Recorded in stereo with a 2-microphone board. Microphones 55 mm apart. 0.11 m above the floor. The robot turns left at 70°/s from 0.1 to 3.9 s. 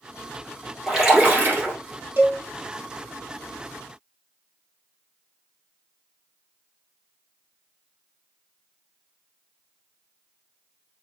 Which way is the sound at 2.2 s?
45° right (ahead or behind).